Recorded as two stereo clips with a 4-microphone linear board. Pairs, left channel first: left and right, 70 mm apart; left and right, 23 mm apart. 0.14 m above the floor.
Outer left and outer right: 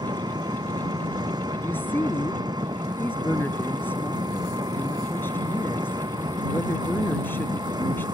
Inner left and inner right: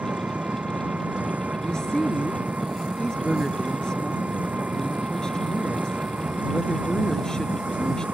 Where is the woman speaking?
30° left (ahead or behind).